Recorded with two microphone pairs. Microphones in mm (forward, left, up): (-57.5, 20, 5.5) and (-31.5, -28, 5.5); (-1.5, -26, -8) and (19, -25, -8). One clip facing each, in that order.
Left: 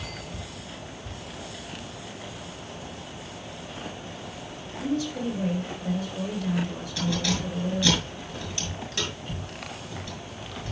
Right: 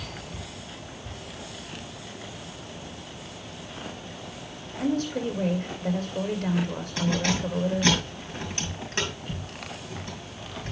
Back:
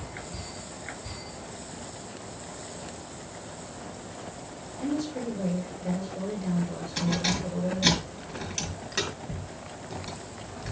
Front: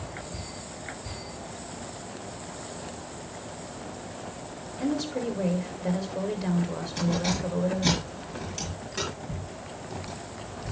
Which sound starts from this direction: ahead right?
A woman speaking, at 4.8 s.